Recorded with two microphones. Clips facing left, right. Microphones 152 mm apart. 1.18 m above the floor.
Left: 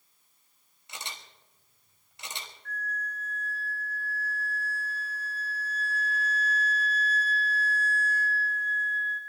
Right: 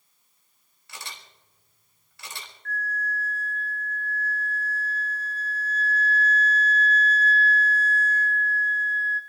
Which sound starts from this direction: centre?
A flute, at 2.6 s.